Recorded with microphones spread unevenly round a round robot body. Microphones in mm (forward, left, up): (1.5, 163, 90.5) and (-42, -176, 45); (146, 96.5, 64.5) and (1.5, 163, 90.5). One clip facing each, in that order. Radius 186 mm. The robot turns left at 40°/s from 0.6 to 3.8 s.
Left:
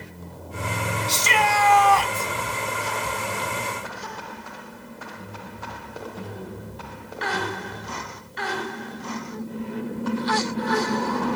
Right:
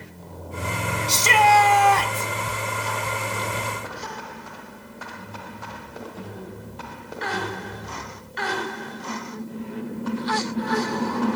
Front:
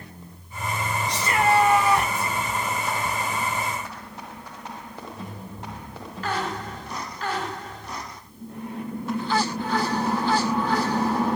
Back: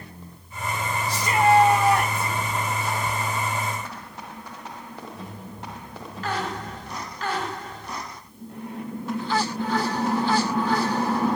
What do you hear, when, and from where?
1.1 s a shout: 115° right, 2 m; by 2.3 s 165° right, 2 m